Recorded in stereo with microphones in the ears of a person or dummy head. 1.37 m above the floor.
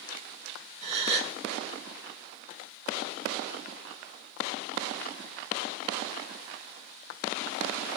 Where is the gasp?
35° right (ahead or behind), 1.3 m.